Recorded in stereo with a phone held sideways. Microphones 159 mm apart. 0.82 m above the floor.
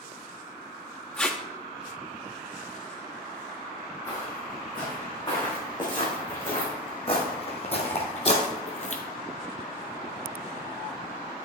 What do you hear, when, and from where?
1.2 s tape being pulled: 5° left (ahead or behind), 0.9 m
4.1 s footsteps: 25° left (ahead or behind), 4.5 m; by 9.0 s 50° left (ahead or behind), 1.4 m